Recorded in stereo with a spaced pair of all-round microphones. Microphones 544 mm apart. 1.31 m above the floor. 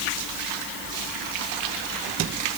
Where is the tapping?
I don't hear tapping.